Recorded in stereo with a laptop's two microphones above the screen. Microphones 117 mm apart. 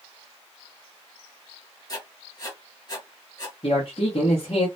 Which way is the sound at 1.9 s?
35° left (ahead or behind).